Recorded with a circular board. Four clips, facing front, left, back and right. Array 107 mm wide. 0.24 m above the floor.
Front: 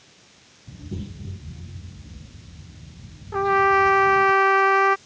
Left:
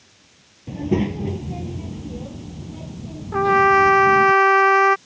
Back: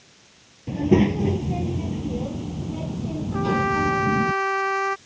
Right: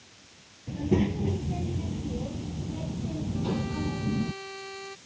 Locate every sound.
0.7 s a child speaking: 155° left; by 4.3 s 170° right
3.3 s a trumpet: 75° left